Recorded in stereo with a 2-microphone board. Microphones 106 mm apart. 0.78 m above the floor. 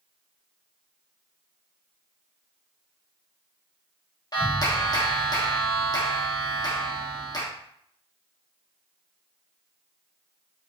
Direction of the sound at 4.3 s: 40° left (ahead or behind).